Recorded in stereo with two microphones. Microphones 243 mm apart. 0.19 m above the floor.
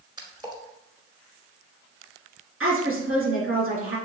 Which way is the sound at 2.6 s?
65° right (ahead or behind).